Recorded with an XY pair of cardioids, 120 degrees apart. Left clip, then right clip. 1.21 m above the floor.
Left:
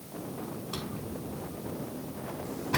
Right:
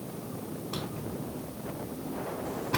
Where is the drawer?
5° left, 3.5 m.